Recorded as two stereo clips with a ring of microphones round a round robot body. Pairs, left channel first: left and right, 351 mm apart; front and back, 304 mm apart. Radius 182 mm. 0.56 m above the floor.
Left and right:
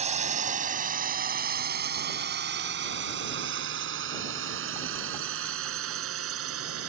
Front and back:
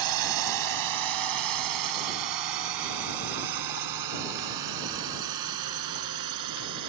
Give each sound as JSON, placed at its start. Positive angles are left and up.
{"t": 0.0, "sound": "a drone", "azimuth_deg": -160}